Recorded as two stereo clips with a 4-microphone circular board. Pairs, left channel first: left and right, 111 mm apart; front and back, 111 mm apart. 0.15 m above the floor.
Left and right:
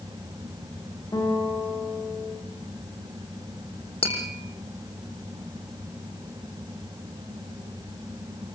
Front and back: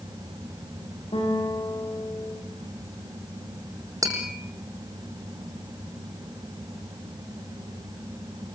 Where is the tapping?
120° left, 5 m.